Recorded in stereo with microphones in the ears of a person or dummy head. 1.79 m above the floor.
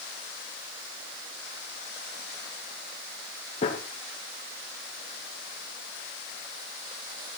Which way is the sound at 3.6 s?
40° left (ahead or behind).